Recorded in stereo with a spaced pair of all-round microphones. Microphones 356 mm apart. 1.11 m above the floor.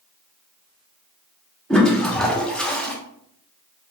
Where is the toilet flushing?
Centre (ahead or behind), 0.6 m.